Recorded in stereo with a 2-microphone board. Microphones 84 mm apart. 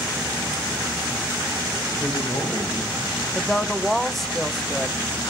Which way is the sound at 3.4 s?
5° left (ahead or behind).